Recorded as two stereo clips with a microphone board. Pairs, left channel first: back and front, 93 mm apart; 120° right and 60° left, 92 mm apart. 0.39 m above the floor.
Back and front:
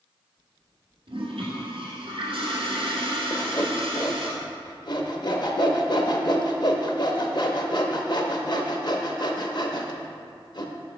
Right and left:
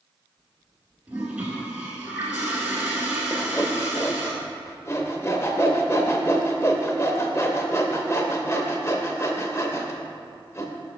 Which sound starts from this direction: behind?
Sawing, at 3.3 s.